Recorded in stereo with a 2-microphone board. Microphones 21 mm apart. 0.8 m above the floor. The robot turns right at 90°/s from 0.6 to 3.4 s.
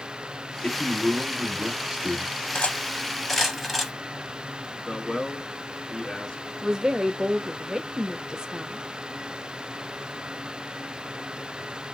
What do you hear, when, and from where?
0.6 s a man speaking: 140° left, 2 m; by 2.3 s 70° right, 2 m
2.5 s cutlery clinking: 85° left, 0.6 m; by 3.9 s 10° left (ahead or behind), 0.6 m
4.9 s a man speaking: 30° left (ahead or behind), 1.2 m
6.6 s a woman speaking: 30° right (ahead or behind), 0.6 m